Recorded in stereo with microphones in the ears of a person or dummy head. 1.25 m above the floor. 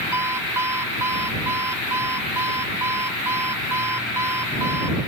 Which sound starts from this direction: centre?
An alarm clock, at 0.1 s.